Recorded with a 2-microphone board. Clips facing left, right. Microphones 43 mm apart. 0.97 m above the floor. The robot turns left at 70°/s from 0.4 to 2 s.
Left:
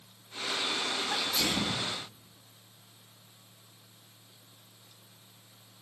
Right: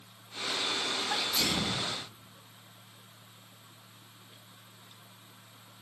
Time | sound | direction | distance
1.1 | a sneeze | 170° right | 2 m